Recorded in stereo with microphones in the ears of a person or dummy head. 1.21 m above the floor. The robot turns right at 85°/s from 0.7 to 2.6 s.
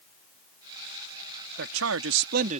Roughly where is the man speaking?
Behind right.